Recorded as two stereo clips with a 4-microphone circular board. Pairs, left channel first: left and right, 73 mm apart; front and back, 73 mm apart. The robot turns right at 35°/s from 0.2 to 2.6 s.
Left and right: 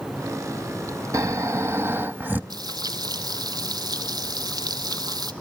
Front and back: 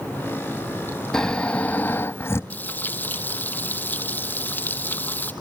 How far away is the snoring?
About 0.6 m.